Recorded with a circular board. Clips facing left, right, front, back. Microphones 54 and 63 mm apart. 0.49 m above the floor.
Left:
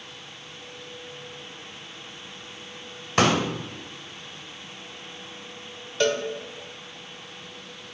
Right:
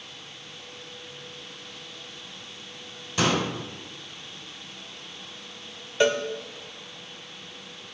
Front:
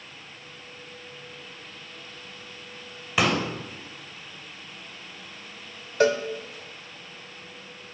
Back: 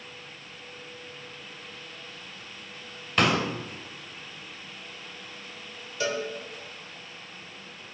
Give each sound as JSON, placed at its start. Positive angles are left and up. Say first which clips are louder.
{"t": 3.2, "sound": "a pop", "louder": "left 4 dB, even", "azimuth_deg": 80, "distance_m": 2.5}
{"t": 6.0, "sound": "a cowbell", "louder": "right 1 dB, front 8 dB", "azimuth_deg": -20, "distance_m": 1.2}